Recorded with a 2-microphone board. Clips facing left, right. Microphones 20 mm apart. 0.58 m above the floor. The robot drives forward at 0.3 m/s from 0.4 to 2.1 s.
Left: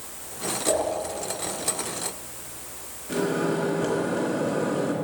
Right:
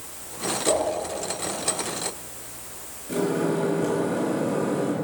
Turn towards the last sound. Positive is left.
turn(degrees=20)  # may be behind; listen again after turning